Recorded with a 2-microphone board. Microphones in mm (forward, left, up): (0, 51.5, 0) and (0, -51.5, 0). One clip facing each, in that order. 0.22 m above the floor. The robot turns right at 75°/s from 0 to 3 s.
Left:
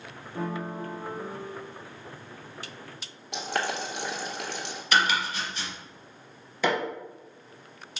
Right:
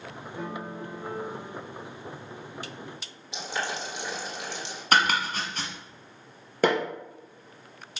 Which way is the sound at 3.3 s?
65° left (ahead or behind).